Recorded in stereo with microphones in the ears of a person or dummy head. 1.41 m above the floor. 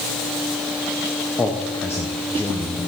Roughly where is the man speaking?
Centre.